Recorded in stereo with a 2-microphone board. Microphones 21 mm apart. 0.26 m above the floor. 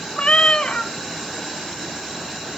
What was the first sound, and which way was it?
A cat meowing, 50° left (ahead or behind).